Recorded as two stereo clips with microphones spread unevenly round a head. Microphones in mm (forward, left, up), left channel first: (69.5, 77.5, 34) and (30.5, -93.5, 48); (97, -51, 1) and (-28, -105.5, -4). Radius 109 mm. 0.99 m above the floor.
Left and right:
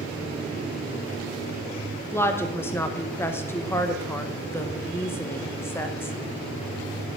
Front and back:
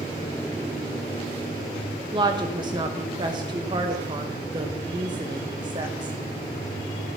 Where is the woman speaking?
150° left, 0.8 m.